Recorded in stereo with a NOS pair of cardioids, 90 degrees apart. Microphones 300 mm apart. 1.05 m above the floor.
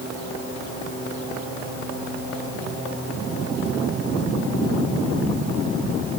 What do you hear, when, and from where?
Only background noise.